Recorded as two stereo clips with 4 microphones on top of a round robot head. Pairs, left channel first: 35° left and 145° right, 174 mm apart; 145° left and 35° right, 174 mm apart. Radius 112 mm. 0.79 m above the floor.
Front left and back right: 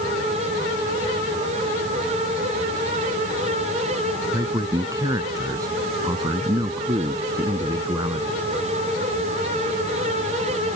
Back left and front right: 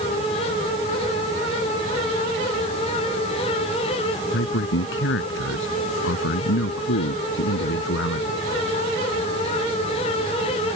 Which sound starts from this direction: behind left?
A man speaking, at 4.3 s.